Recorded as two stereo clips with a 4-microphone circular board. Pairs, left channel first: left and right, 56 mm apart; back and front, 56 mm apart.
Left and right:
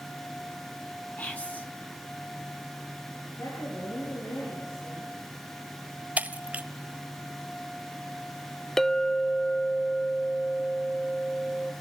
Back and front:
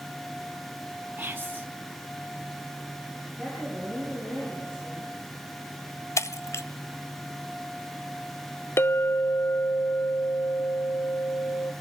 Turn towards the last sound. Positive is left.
turn(degrees=175)